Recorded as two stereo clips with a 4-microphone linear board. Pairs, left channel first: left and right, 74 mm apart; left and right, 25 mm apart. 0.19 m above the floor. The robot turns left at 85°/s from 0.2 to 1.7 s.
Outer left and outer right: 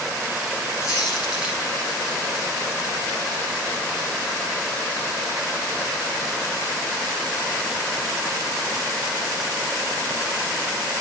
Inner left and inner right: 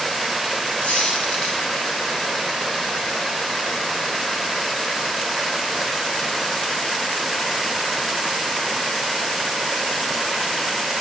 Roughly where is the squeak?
Behind left.